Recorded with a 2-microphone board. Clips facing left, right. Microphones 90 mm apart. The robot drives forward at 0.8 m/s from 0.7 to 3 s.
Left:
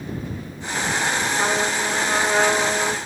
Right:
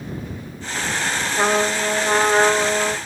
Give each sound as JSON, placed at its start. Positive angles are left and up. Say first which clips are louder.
{"t": 1.4, "sound": "a trumpet", "louder": "right 7 dB", "side_deg": -65, "distance_m": 0.6}